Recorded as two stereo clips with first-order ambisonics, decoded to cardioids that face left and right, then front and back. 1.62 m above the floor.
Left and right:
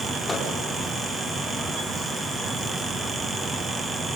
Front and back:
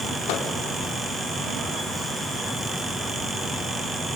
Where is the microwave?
10° left, 4.5 m.